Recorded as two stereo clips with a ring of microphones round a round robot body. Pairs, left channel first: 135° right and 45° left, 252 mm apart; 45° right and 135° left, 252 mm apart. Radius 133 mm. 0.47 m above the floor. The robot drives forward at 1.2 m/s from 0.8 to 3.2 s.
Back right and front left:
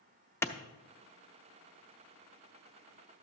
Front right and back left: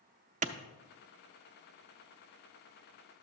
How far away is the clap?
About 0.6 m.